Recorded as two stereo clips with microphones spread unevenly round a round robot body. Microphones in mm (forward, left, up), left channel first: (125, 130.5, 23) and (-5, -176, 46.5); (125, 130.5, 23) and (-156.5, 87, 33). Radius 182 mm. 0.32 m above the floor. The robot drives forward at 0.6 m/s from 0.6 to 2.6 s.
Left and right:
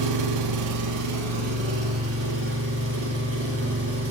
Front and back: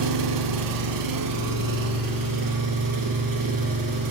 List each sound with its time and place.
0.0 s an engine running: 155° right, 0.8 m; by 4.1 s 170° right, 1.9 m